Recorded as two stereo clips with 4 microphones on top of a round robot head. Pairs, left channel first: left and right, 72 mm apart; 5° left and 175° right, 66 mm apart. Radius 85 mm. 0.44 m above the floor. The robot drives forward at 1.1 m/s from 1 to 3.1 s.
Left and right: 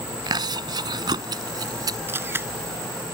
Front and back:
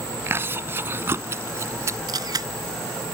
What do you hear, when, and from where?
0.3 s chewing: 115° right; by 2.0 s 125° right
2.1 s a camera shutter: 150° right